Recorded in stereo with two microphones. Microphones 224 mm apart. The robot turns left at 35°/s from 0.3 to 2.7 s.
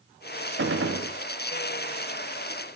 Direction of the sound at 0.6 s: 60° right (ahead or behind).